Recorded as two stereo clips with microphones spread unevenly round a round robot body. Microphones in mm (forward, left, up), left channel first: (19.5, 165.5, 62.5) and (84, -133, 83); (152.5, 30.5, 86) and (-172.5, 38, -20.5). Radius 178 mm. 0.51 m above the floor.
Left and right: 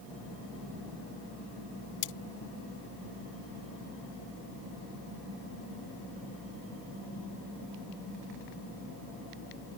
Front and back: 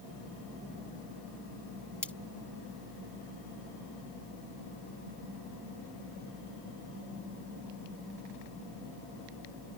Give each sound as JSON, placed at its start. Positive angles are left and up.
{"t": 2.0, "sound": "cutlery clinking", "azimuth_deg": 90}